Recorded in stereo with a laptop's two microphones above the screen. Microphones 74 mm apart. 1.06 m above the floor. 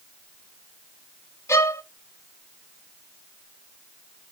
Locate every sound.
1.5 s a violin: 40° left (ahead or behind), 0.6 m